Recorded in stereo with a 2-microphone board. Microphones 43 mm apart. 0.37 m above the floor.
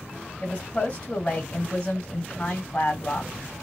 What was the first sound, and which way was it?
A woman speaking, 25° left (ahead or behind).